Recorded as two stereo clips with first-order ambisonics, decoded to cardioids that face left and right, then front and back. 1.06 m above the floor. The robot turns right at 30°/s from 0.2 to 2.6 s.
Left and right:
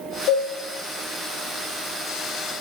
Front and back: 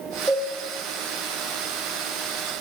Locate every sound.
0.3 s a cowbell: 100° left, 2.0 m; by 0.5 s 105° left, 2.0 m